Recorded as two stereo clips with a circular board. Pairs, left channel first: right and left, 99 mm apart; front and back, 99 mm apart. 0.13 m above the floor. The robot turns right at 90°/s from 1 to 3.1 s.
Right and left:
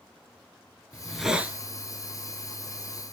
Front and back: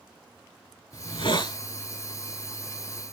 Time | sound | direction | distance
0.9 | a hiss | 20° right | 0.8 m